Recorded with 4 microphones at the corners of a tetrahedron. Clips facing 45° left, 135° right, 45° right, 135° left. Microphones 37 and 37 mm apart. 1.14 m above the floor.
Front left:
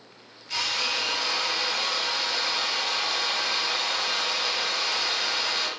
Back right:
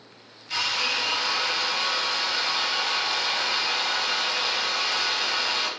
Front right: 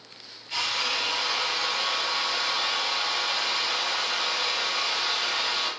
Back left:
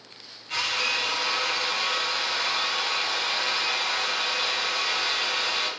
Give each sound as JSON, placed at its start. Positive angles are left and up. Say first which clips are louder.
{"t": 0.5, "sound": "a drill", "louder": "back right 2 dB, back left 2 dB", "azimuth_deg": 160, "distance_m": 1.8}